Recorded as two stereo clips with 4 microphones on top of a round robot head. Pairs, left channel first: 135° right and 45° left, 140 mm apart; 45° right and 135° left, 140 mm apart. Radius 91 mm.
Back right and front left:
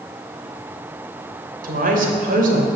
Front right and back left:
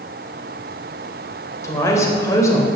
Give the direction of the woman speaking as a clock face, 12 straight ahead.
11 o'clock.